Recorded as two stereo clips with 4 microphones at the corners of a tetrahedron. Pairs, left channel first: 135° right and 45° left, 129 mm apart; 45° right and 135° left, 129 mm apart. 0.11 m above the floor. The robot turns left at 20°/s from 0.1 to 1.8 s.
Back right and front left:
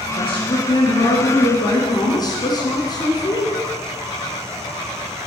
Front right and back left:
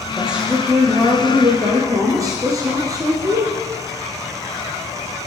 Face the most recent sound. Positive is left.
turn(degrees=-175)